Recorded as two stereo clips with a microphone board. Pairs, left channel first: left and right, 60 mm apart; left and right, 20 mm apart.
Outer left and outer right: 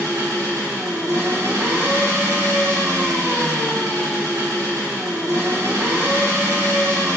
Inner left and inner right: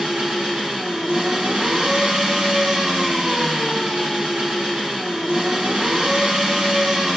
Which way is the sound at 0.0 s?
80° right.